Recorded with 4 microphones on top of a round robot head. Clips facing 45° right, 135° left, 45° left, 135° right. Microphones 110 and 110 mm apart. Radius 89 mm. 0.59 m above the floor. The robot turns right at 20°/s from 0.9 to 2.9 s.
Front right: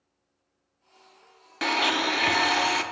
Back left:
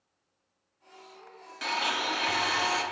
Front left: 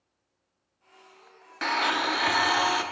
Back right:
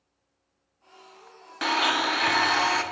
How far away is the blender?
About 0.7 m.